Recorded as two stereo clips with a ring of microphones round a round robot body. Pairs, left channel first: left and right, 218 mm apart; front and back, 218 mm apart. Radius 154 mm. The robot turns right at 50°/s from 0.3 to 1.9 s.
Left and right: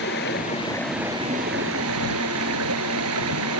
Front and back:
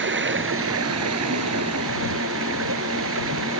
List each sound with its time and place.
0.0 s running water: 150° left; by 3.6 s 130° right